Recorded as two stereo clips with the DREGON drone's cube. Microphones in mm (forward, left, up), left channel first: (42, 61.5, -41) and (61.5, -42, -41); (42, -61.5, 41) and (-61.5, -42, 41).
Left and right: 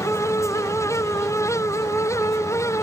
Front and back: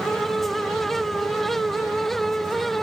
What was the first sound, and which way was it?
Only background noise.